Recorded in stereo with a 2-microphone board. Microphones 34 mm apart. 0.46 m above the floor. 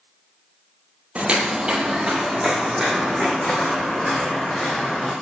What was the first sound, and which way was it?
Footsteps, 40° right (ahead or behind).